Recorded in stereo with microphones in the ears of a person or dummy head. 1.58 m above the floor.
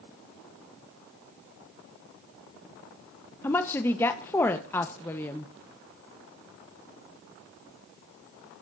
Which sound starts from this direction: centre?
A woman speaking, at 3.4 s.